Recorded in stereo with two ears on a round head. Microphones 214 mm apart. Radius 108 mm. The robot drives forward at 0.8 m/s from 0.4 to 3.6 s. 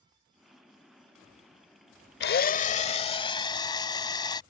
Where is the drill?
45° left (ahead or behind); by 4.4 s 20° left (ahead or behind).